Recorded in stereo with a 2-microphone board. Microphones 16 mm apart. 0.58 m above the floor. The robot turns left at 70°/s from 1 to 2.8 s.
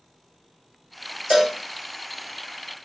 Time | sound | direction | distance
1.3 | a cowbell | 40° right (ahead or behind) | 1.1 m